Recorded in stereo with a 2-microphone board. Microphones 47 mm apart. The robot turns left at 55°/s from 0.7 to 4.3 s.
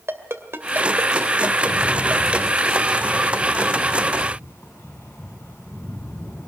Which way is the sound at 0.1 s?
65° right (ahead or behind).